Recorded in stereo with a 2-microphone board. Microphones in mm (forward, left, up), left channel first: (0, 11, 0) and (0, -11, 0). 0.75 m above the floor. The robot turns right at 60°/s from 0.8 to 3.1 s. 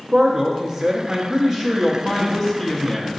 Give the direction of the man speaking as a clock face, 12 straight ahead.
4 o'clock.